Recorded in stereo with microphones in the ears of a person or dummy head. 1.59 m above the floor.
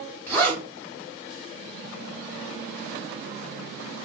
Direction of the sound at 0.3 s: 10° left (ahead or behind).